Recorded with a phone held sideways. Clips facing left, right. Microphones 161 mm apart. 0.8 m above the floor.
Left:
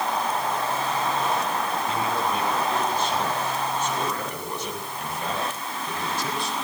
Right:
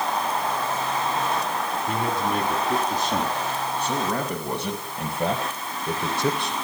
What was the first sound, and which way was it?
A man speaking, 65° right (ahead or behind).